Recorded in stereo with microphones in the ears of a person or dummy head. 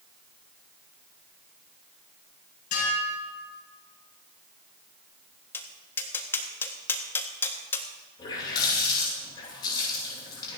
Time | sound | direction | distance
2.7 | dishes clattering | 60° left (ahead or behind) | 7 m
5.5 | tapping | 20° left (ahead or behind) | 1.6 m
8.2 | a running tap | 30° left (ahead or behind) | 8 m